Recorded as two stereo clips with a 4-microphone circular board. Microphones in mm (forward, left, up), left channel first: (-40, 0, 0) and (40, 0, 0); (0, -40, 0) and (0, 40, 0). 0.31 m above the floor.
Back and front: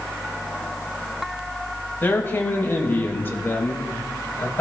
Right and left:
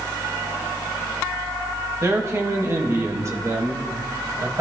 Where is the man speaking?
125° left, 1.8 m.